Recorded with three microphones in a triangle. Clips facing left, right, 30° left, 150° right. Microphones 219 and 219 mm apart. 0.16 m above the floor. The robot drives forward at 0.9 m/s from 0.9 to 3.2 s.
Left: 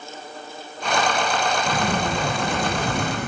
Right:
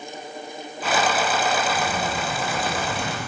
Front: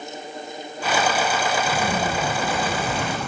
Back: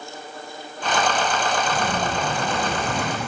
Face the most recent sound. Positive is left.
turn(degrees=125)